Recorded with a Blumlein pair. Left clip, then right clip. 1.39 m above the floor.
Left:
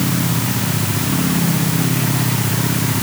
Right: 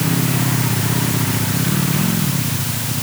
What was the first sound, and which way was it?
Only background noise.